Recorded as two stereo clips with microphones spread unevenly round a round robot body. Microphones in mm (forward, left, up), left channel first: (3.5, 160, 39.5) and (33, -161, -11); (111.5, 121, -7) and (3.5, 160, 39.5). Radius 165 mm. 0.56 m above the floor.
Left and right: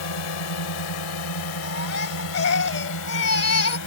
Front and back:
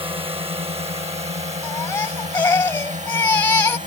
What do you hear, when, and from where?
0.0 s a drone: 110° left; by 3.9 s 140° left
1.6 s a baby crying: 50° left